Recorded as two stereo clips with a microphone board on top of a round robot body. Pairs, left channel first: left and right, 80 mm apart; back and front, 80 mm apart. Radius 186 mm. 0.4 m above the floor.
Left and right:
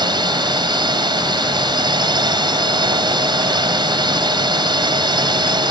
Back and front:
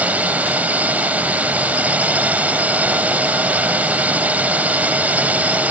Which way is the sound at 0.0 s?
70° right.